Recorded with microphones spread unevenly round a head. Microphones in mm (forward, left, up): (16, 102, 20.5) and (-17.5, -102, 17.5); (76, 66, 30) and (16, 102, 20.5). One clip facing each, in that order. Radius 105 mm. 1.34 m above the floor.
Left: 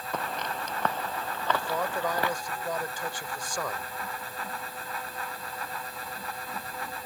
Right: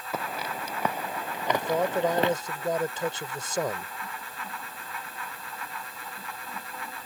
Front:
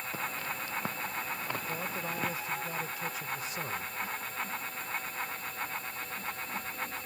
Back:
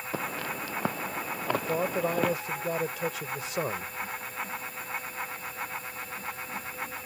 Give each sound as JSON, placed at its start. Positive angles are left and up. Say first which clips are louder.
{"t": 0.1, "sound": "footsteps", "louder": "right 1 dB, back 5 dB", "azimuth_deg": 175}
{"t": 1.5, "sound": "a man speaking", "louder": "right 5 dB, back 8 dB", "azimuth_deg": -165}